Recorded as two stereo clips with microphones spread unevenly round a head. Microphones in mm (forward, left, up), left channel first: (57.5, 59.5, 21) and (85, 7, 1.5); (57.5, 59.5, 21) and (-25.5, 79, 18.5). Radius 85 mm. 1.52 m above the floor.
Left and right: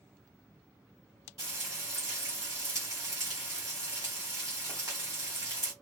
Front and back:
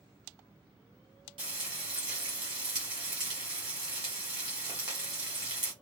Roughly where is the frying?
Behind right.